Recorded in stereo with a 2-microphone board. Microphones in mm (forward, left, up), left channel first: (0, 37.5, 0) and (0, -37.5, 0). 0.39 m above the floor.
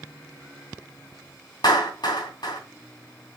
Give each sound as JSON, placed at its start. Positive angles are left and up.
{"t": 1.6, "sound": "a clap", "side_deg": 65, "distance_m": 3.0}